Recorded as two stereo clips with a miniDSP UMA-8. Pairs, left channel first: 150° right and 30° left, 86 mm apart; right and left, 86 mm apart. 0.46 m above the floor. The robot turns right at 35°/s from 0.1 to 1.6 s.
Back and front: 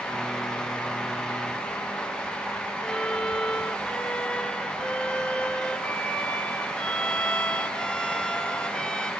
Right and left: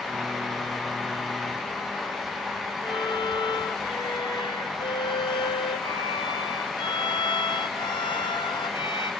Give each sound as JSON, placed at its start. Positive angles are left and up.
{"t": 2.8, "sound": "a violin", "azimuth_deg": -70, "distance_m": 1.4}